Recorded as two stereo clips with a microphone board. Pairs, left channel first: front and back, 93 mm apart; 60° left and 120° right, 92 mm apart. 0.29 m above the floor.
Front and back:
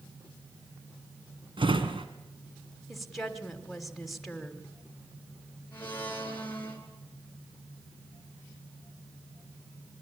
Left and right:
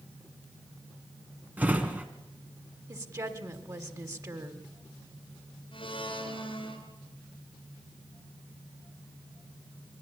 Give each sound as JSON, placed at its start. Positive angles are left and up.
{"t": 1.6, "sound": "a drawer", "azimuth_deg": 165, "distance_m": 1.7}
{"t": 2.9, "sound": "a woman speaking", "azimuth_deg": -90, "distance_m": 1.6}
{"t": 5.7, "sound": "a blender", "azimuth_deg": 65, "distance_m": 3.5}